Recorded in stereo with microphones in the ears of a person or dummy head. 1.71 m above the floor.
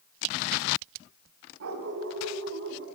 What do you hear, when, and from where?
1.6 s a dog barking: 75° right (ahead or behind), 5 m